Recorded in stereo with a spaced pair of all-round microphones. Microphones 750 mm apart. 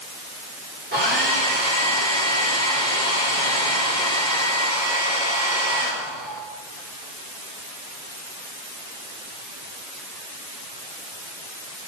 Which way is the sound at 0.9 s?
15° right (ahead or behind).